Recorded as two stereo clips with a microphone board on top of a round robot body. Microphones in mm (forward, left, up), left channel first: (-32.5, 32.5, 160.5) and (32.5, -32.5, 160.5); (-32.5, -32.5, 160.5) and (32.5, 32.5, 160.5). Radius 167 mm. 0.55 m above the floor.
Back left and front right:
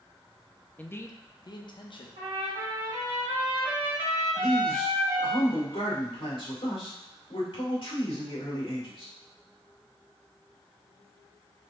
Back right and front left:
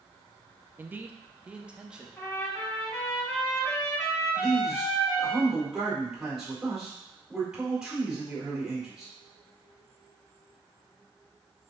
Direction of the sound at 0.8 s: 80° left.